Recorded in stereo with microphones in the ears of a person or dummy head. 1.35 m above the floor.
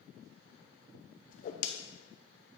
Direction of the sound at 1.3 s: 40° left (ahead or behind).